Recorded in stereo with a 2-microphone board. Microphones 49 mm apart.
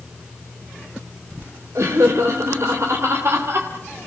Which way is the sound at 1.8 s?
65° right (ahead or behind).